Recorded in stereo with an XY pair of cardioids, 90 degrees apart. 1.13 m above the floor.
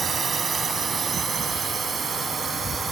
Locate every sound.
0.0 s a drone: 50° right; by 2.9 s 45° right